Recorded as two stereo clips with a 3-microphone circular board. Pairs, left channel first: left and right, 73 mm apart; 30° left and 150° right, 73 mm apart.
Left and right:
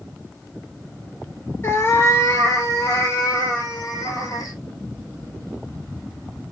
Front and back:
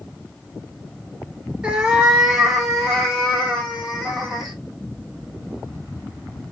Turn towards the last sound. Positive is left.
turn(degrees=120)